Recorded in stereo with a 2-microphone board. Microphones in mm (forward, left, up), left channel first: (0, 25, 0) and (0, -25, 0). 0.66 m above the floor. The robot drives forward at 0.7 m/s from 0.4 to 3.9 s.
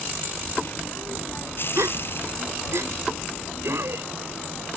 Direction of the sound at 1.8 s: 75° right (ahead or behind).